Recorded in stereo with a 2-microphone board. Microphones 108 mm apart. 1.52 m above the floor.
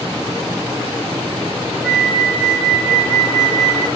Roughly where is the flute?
Centre.